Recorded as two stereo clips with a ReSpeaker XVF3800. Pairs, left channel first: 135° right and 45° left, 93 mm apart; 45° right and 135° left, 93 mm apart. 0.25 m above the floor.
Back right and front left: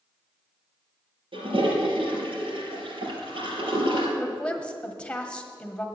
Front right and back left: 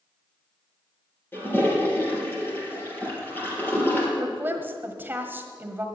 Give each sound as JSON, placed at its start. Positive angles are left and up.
{"t": 1.3, "sound": "a toilet flushing", "azimuth_deg": 20, "distance_m": 3.5}
{"t": 4.2, "sound": "a woman speaking", "azimuth_deg": 165, "distance_m": 1.4}